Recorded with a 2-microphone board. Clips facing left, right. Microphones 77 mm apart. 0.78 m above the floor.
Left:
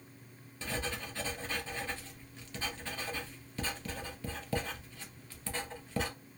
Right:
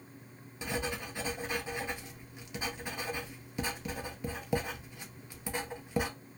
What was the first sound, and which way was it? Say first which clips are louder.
Writing: right 2 dB; 15° right (ahead or behind).